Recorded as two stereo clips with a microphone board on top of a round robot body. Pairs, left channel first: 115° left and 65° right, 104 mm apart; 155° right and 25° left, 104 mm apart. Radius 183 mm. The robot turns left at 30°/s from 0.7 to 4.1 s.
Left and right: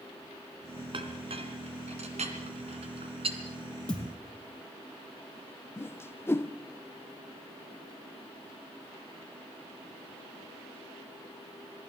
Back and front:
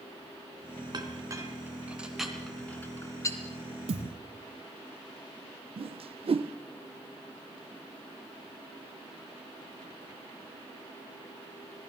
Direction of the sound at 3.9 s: 35° left.